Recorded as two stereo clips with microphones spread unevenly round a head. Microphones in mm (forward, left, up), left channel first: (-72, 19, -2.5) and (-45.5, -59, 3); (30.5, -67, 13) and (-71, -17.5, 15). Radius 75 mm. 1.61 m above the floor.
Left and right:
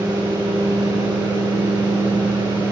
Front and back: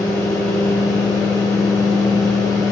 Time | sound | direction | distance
0.0 | a fan | 90° right | 2.5 m